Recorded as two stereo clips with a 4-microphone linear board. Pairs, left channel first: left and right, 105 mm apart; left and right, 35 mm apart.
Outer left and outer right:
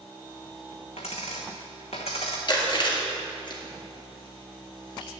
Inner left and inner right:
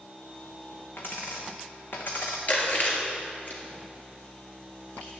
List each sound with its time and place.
1.0 s a dropped coin: 75° left (ahead or behind), 1.2 m
2.5 s chewing: 50° left (ahead or behind), 1.8 m